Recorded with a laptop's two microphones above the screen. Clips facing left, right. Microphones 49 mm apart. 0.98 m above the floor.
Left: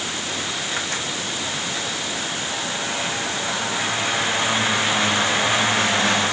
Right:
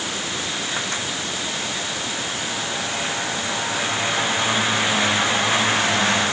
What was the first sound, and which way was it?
Only background noise.